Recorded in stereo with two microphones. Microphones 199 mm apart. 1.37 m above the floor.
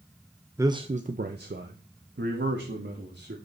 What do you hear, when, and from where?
0.6 s a man speaking: 15° right (ahead or behind), 0.7 m; by 3.4 s 80° right, 2 m